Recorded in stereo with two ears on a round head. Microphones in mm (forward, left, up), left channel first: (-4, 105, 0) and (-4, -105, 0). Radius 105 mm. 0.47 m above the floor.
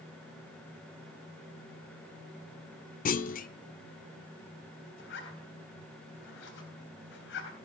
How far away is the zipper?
About 3.5 m.